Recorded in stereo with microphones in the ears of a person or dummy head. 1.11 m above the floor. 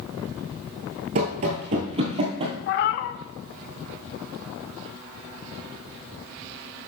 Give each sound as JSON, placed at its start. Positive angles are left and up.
{"t": 1.1, "sound": "running footsteps", "side_deg": -35, "distance_m": 1.4}
{"t": 2.7, "sound": "a cat meowing", "side_deg": 55, "distance_m": 0.7}